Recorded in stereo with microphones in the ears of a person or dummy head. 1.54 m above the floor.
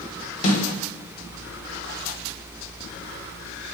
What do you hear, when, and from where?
0.4 s a snare drum: 45° left (ahead or behind), 1.4 m